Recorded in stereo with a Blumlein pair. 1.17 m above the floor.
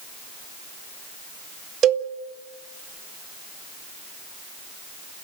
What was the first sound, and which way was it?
A cowbell, 30° right.